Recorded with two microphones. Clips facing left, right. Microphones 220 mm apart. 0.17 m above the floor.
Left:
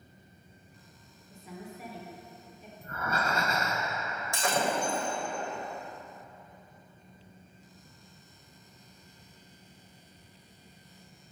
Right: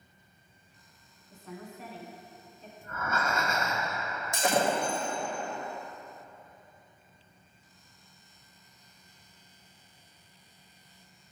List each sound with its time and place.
1.3 s a woman speaking: 10° left (ahead or behind), 1.2 m
2.8 s breathing: 35° left (ahead or behind), 0.9 m
4.3 s breaking glass: 20° right (ahead or behind), 2 m